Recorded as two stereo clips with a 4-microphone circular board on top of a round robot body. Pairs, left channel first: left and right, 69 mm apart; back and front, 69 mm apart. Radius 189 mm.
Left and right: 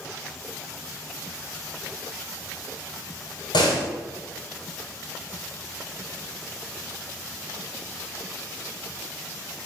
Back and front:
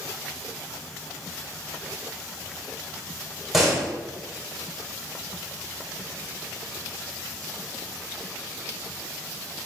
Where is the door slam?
85° left, 3.5 m.